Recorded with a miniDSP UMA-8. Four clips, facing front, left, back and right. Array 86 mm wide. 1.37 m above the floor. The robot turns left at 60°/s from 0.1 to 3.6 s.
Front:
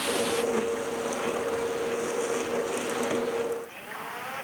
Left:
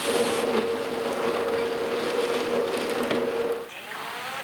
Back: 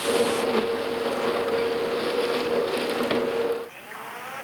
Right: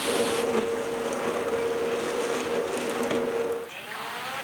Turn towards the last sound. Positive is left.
No sound to turn to.